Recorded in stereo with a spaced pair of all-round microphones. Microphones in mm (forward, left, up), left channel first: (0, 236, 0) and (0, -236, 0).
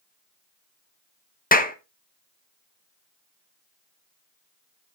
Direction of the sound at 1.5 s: 20° left (ahead or behind).